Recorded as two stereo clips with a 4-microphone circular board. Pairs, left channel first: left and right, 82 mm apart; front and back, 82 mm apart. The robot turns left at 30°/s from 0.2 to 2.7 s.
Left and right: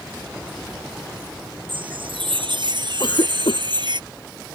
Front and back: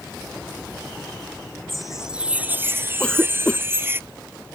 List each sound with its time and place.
1.7 s a chime: 85° right; by 4.0 s 115° right
3.0 s a cough: 80° left